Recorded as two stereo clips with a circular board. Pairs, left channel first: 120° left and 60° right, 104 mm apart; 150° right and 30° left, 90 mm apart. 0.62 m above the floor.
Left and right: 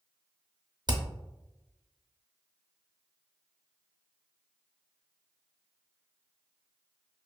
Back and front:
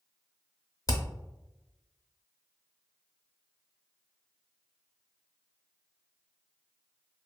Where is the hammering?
105° right, 0.5 m.